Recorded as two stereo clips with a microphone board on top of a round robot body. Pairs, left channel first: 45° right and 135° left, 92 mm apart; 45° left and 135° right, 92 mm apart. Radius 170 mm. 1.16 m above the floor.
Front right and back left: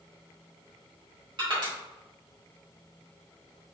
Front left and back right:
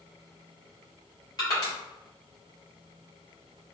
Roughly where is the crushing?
Left.